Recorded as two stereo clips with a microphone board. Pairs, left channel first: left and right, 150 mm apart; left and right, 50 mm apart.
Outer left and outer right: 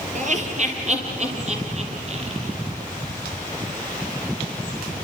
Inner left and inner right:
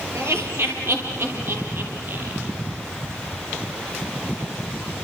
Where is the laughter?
55° right (ahead or behind), 7 m; by 2.5 s 45° right (ahead or behind), 10.5 m.